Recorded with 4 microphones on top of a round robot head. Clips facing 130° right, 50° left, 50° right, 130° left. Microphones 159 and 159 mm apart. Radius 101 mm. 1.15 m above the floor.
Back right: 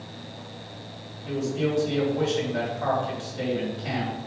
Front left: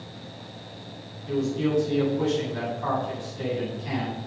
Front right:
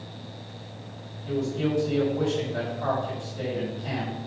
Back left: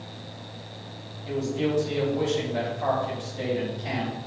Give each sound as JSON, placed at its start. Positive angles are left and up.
{"t": 1.2, "sound": "a man speaking", "azimuth_deg": -145, "distance_m": 5.5}